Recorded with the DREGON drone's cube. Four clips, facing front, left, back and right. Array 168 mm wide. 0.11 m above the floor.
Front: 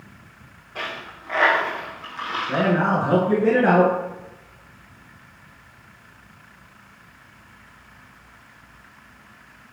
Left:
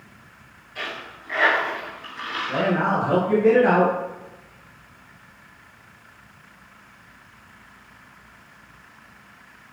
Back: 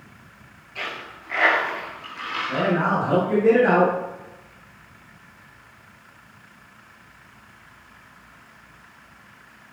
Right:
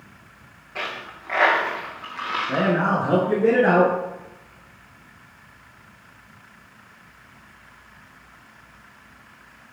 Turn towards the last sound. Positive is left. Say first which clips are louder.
# even, front 1 dB
turn(degrees=-45)